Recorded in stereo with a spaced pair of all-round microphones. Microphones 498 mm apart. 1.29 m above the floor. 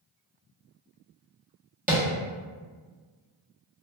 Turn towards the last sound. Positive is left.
turn(degrees=-15)  # may be behind; listen again after turning